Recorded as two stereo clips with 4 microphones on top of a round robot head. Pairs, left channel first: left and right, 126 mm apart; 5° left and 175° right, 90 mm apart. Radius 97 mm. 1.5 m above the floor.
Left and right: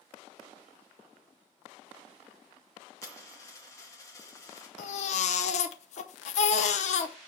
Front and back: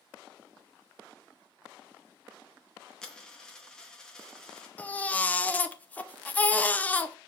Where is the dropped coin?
75° left, 0.8 m.